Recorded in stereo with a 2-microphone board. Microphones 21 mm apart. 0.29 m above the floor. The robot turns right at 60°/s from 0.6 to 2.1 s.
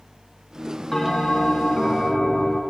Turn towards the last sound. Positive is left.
turn(degrees=90)